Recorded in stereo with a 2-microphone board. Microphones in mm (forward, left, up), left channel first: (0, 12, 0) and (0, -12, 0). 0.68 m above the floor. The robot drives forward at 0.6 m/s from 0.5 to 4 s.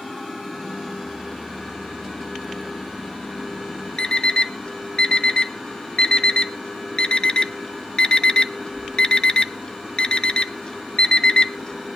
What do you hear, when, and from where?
4.0 s an alarm clock: 40° left (ahead or behind), 0.8 m